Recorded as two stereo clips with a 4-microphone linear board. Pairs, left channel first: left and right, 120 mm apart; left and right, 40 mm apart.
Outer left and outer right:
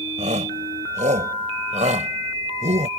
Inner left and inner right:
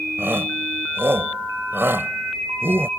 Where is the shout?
80° right.